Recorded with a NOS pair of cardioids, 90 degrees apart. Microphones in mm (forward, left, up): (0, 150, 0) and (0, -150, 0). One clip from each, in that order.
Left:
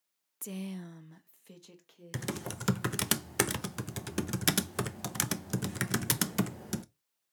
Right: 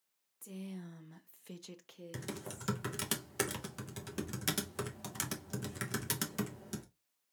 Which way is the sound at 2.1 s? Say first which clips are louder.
Left 7 dB; 40° left.